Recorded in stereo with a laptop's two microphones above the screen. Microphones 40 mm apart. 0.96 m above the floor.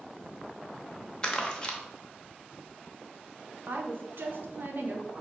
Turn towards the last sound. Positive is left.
turn(degrees=-65)  # may be behind; listen again after turning